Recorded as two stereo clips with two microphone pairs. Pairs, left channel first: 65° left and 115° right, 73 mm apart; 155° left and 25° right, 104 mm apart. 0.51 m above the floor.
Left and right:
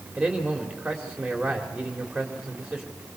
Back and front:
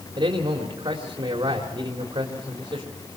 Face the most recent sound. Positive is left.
turn(degrees=-35)